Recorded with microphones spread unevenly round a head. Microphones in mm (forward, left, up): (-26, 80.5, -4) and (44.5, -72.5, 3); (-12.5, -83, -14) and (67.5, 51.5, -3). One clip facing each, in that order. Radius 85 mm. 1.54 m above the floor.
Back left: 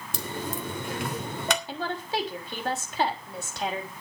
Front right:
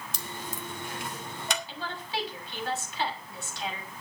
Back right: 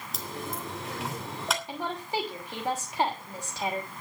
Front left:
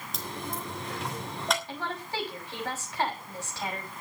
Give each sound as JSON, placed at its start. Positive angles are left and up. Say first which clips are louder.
{"t": 0.1, "sound": "a dropped coin", "louder": "back left 9 dB, even", "azimuth_deg": 150, "distance_m": 3.0}
{"t": 1.7, "sound": "a woman speaking", "louder": "back left 6 dB, back right 3 dB", "azimuth_deg": 165, "distance_m": 6.0}